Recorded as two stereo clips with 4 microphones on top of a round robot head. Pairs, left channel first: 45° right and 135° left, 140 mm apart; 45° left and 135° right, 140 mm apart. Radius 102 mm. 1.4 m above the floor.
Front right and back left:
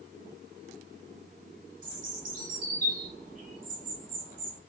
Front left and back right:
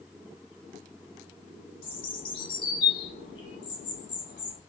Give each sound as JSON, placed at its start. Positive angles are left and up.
{"t": 1.8, "sound": "a bird", "azimuth_deg": 100, "distance_m": 1.0}